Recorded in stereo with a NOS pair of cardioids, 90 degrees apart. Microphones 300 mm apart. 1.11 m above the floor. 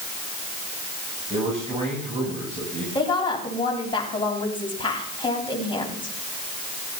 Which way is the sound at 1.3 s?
20° right.